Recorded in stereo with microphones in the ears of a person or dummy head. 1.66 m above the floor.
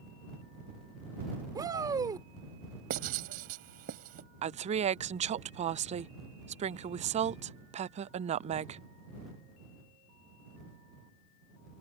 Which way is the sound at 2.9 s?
40° right (ahead or behind).